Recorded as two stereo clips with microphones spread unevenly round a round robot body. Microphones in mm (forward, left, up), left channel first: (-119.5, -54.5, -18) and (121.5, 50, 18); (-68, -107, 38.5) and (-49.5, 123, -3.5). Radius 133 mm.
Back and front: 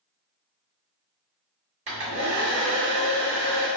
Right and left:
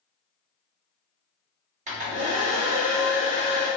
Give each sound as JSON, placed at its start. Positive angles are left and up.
{"t": 1.9, "sound": "a hair dryer", "azimuth_deg": 85, "distance_m": 1.4}